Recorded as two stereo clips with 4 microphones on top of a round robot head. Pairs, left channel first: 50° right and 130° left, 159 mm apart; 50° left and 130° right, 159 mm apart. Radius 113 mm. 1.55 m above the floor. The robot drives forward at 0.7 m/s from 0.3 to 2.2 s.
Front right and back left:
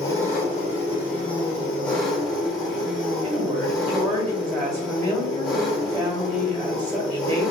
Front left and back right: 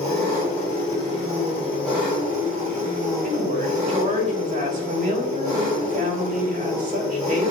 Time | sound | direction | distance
0.0 | an engine running | 5° left | 1.7 m
3.2 | a woman speaking | straight behind | 1.4 m